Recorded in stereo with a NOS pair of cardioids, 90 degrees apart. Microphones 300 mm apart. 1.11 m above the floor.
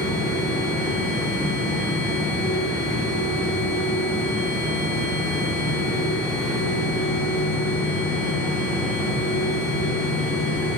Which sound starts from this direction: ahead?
A machine running, at 0.0 s.